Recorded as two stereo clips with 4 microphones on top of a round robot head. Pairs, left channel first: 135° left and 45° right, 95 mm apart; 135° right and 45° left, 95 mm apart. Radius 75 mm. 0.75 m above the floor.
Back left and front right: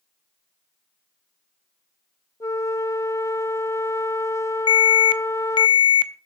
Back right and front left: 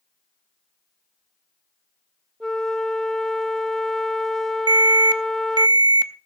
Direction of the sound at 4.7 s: 90° left.